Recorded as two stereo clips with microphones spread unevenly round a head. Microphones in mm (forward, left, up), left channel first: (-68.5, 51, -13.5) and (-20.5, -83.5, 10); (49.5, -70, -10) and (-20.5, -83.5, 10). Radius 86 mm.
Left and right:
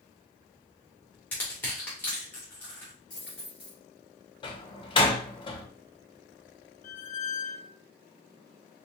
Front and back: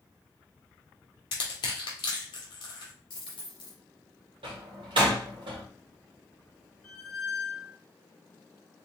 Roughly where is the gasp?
No gasp in this recording.